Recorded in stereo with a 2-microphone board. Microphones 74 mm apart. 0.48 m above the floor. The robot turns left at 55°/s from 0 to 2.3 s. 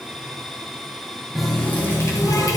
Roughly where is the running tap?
Behind.